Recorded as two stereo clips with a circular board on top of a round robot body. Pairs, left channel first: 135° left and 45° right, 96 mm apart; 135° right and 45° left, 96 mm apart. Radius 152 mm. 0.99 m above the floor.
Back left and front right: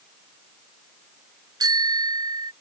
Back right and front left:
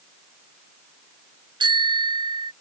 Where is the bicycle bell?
5° left.